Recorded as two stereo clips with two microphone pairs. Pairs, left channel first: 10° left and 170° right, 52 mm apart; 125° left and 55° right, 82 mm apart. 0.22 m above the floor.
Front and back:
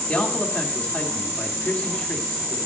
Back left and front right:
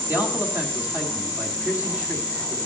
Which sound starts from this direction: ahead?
A man speaking, at 0.1 s.